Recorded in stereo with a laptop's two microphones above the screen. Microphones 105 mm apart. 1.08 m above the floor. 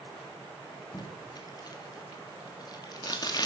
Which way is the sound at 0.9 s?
40° left (ahead or behind).